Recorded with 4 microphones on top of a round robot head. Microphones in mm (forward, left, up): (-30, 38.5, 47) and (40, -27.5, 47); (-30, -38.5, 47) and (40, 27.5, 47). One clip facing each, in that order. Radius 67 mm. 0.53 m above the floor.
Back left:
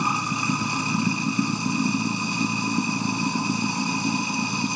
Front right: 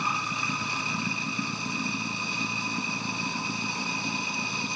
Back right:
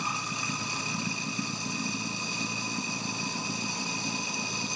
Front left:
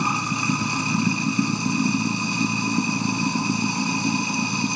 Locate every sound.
0.0 s running water: 85° left